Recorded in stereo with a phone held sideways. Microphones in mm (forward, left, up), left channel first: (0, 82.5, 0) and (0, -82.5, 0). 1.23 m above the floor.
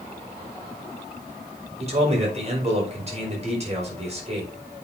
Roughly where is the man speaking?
Right.